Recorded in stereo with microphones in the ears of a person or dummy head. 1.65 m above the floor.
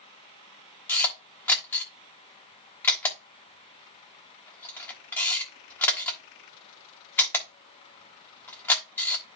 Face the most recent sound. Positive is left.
turn(degrees=10)  # may be behind; listen again after turning